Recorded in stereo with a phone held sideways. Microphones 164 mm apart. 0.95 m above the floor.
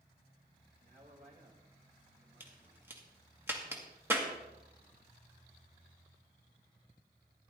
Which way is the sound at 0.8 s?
55° right (ahead or behind).